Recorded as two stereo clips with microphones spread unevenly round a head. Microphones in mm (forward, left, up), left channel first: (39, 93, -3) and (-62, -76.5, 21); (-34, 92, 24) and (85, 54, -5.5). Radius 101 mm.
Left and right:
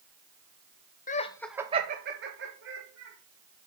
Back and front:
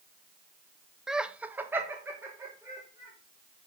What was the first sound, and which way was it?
Laughter, 55° left.